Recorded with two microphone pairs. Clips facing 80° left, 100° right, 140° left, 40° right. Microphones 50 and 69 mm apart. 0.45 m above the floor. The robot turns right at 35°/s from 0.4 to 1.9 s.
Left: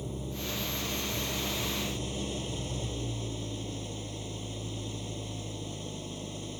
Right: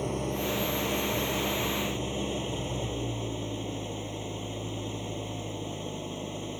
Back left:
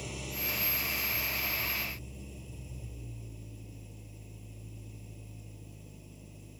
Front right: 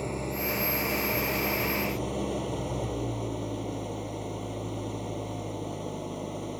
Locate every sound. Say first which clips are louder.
0.0 s an engine running: right 7 dB, front right 9 dB; 95° right; by 6.6 s 40° right